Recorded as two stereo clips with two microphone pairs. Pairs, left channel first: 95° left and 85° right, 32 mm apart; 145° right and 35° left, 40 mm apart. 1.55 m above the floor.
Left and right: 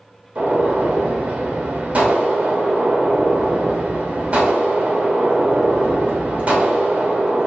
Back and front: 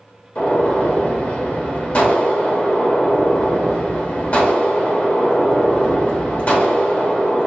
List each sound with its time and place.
0.3 s a gunshot: 110° right, 1.3 m